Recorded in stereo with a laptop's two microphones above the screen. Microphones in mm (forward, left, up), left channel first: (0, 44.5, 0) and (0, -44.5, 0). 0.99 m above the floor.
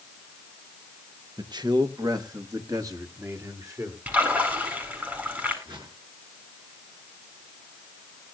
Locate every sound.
1.4 s a man speaking: 55° right (ahead or behind), 1.2 m; by 4.0 s 40° right (ahead or behind), 3 m
4.1 s a splash: 20° right (ahead or behind), 8.5 m
5.7 s a whoosh: 60° right (ahead or behind), 6 m